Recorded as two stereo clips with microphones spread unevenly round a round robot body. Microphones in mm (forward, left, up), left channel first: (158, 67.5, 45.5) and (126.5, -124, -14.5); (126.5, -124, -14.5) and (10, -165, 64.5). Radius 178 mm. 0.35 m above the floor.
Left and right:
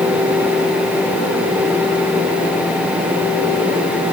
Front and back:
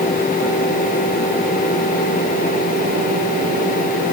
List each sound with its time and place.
Only background noise.